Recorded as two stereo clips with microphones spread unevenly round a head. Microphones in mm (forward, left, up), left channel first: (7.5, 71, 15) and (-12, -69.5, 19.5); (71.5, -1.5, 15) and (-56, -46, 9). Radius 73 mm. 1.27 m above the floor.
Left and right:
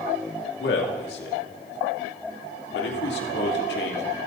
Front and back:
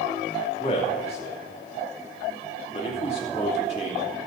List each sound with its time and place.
0.6 s a man speaking: 70° left, 2.5 m